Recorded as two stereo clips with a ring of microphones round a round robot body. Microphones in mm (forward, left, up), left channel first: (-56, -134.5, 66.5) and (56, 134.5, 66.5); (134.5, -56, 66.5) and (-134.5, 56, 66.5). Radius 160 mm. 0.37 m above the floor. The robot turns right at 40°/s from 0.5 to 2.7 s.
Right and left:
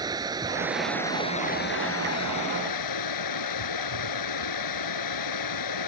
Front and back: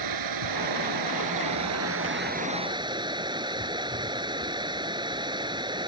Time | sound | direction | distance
0.0 | running water | 145° left | ?